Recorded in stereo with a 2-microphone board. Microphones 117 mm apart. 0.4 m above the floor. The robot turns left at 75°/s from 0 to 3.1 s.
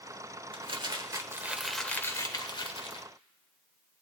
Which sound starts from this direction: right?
Crumpling, at 0.5 s.